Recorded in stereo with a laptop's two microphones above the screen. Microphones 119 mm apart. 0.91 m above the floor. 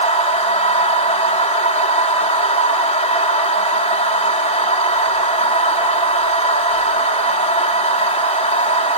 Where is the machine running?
80° left, 1.8 m.